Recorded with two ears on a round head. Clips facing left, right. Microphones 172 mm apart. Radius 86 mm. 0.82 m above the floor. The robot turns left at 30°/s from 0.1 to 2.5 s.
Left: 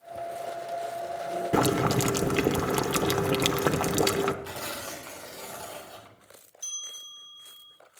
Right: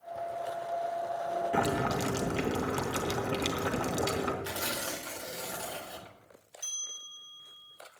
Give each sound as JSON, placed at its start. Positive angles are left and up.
{"t": 1.5, "sound": "boiling", "side_deg": 55, "distance_m": 0.8}
{"t": 4.4, "sound": "tearing paper", "side_deg": -15, "distance_m": 1.7}
{"t": 6.6, "sound": "a bell", "side_deg": 5, "distance_m": 4.0}